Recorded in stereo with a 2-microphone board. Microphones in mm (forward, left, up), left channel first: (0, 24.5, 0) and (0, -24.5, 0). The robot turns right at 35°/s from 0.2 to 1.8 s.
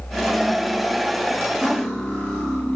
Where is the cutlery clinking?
5° right (ahead or behind), 1.9 m; by 2.8 s 5° left (ahead or behind), 1.9 m.